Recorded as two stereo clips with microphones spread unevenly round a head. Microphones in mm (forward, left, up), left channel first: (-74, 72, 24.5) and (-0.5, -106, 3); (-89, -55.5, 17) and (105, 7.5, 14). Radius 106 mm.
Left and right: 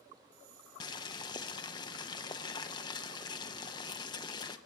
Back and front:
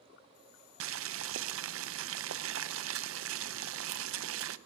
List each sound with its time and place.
0.8 s boiling: 45° left, 0.5 m